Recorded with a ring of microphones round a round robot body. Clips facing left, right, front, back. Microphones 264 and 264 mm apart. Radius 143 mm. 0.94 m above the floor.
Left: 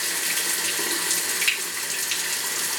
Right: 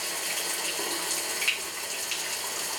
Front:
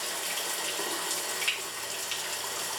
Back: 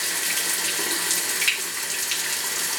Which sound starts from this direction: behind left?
Running water, at 0.0 s.